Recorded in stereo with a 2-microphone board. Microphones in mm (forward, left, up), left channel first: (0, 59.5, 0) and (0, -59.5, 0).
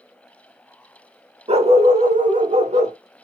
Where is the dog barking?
50° right (ahead or behind), 1.0 m; by 3.0 s 75° right (ahead or behind), 1.1 m.